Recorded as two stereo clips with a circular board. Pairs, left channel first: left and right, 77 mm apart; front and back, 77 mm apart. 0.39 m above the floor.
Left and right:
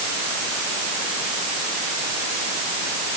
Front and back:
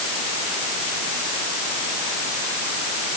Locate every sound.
Only background noise.